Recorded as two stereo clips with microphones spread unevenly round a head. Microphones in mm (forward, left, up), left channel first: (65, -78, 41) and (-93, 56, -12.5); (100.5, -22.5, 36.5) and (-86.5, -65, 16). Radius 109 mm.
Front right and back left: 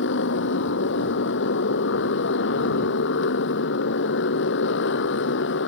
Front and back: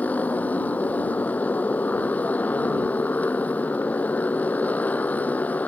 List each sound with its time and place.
0.0 s a motorcycle: 70° right